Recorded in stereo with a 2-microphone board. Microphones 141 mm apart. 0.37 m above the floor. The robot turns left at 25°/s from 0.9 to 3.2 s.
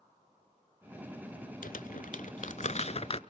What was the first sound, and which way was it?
Crumpling, 80° left.